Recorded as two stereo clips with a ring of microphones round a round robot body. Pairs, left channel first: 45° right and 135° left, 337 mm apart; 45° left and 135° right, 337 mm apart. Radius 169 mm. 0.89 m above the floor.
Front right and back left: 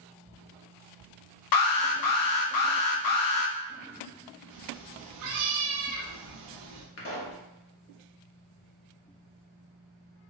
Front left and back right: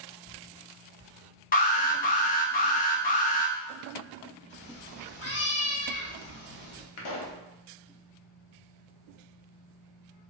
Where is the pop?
10° left, 0.9 m.